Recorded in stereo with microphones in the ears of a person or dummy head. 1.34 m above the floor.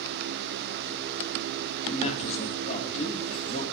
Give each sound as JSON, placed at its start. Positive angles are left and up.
{"t": 1.9, "sound": "a man speaking", "side_deg": 40, "distance_m": 1.9}